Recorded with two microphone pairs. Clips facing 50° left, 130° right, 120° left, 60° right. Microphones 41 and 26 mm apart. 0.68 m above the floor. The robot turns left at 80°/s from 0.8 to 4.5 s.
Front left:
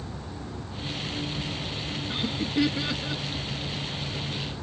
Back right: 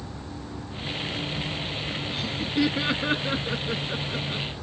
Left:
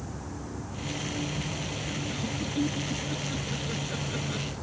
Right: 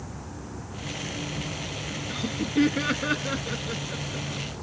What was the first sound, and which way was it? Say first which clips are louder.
Laughter: front left 2 dB, right 8 dB; straight ahead.